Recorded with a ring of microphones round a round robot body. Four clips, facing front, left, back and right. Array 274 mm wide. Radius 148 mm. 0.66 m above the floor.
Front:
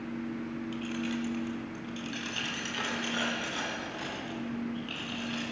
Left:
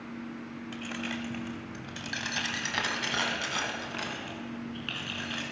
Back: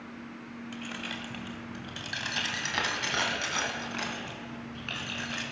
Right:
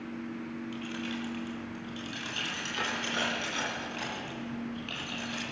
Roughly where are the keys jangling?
Left.